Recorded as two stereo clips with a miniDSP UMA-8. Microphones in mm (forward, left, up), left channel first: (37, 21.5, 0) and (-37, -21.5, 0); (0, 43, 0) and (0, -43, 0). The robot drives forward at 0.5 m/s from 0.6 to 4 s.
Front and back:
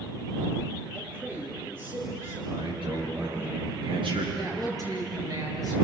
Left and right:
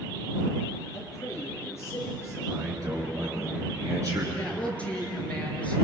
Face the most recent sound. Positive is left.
turn(degrees=165)